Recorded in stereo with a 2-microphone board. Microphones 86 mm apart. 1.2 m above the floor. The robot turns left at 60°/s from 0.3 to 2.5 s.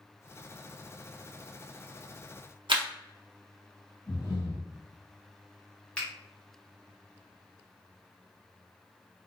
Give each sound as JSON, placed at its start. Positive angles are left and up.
{"t": 2.7, "sound": "a camera shutter", "side_deg": -70, "distance_m": 0.6}
{"t": 4.1, "sound": "breathing", "side_deg": 50, "distance_m": 1.2}
{"t": 6.0, "sound": "a finger snap", "side_deg": 15, "distance_m": 0.9}